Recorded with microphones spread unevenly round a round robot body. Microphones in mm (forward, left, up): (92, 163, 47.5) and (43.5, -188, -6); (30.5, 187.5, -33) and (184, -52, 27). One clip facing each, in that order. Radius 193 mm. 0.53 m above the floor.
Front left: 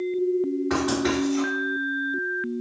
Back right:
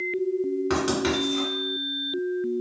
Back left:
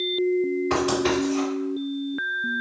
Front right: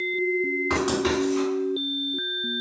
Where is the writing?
100° right, 1.9 m.